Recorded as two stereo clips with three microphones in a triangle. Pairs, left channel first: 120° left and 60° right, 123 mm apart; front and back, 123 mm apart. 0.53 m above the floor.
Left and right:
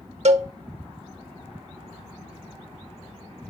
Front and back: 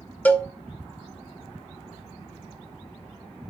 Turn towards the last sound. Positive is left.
turn(degrees=-75)